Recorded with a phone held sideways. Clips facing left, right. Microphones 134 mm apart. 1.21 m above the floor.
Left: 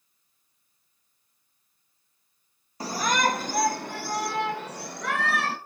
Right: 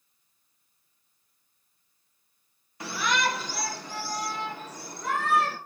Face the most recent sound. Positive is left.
turn(degrees=75)  # may be behind; listen again after turning